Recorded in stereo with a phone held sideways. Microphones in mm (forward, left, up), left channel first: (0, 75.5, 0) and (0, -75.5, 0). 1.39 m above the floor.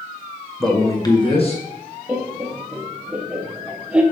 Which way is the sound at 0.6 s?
Centre (ahead or behind).